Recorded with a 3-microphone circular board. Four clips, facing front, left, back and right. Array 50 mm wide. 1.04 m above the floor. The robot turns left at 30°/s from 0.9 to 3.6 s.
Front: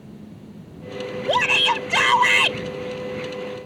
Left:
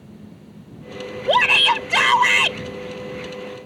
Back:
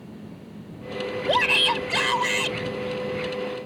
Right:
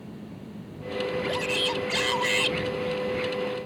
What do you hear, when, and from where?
1.3 s a shout: 85° left; by 2.6 s 45° left